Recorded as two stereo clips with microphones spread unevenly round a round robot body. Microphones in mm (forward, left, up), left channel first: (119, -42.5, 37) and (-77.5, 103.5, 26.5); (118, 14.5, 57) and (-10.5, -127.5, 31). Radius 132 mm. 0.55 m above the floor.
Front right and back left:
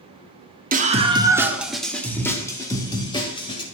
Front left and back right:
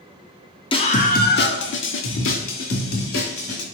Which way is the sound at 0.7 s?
110° left.